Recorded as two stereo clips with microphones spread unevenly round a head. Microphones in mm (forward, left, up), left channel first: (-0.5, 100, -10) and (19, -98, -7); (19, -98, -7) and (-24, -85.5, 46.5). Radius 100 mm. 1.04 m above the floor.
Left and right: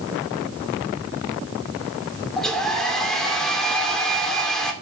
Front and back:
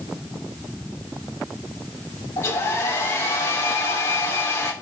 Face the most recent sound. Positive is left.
turn(degrees=10)